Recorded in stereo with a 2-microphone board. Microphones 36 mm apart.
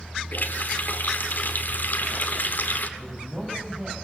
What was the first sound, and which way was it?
A running tap, 55° left (ahead or behind).